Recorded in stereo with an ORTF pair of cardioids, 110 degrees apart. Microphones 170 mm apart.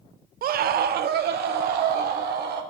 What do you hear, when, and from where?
0.4 s a scream: 55° right, 0.8 m; by 2.6 s 65° right, 3.5 m